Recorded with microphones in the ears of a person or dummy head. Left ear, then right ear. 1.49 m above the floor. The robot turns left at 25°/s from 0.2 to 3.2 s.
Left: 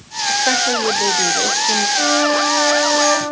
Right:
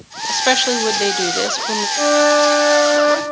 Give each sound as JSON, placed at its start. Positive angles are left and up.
{"t": 0.3, "sound": "a woman speaking", "azimuth_deg": -90, "distance_m": 0.6}
{"t": 2.0, "sound": "a flute", "azimuth_deg": -60, "distance_m": 1.9}